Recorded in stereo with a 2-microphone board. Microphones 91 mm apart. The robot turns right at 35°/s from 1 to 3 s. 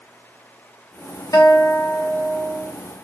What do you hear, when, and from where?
1.3 s a guitar: 135° left, 1.3 m; by 2.7 s 175° right, 1.3 m